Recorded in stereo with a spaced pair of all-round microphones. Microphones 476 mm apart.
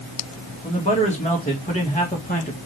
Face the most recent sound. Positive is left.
turn(degrees=15)  # may be behind; listen again after turning